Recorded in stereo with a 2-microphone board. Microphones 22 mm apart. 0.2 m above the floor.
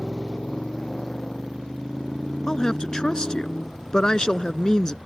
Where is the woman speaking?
35° left (ahead or behind).